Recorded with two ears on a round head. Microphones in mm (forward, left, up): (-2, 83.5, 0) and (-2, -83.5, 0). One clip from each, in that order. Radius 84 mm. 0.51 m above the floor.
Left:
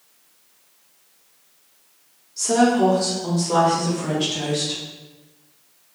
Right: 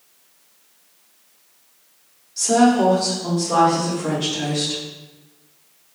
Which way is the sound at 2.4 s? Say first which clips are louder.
Right 2 dB; 25° right (ahead or behind).